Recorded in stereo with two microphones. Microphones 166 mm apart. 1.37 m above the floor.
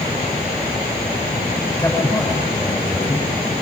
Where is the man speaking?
15° left (ahead or behind), 6.5 m.